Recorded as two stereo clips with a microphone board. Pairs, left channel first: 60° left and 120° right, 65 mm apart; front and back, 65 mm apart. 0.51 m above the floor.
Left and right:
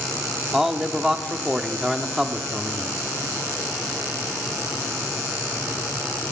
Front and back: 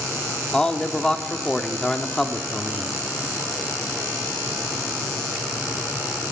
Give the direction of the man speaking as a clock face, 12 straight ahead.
2 o'clock.